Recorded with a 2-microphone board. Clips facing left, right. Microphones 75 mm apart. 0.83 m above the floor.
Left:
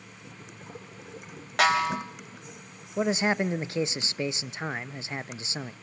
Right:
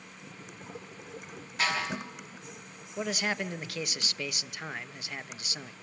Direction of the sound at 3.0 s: 25° left (ahead or behind).